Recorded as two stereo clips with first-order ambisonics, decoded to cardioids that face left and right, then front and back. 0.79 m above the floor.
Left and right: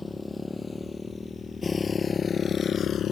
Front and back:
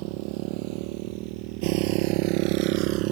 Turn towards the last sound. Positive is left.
turn(degrees=150)